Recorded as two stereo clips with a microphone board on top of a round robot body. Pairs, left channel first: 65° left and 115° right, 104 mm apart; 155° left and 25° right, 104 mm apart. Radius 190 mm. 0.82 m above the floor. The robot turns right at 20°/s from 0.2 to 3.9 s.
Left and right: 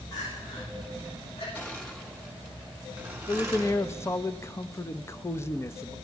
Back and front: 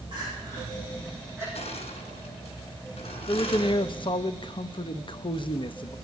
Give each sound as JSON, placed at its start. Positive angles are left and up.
{"t": 0.1, "sound": "crying", "azimuth_deg": 20, "distance_m": 9.5}
{"t": 1.6, "sound": "crushing", "azimuth_deg": 140, "distance_m": 3.5}
{"t": 3.3, "sound": "a man speaking", "azimuth_deg": 115, "distance_m": 1.0}